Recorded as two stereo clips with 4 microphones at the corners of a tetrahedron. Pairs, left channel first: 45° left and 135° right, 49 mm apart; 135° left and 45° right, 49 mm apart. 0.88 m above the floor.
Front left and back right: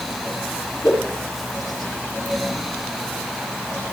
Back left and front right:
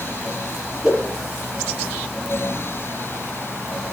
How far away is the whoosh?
About 8 m.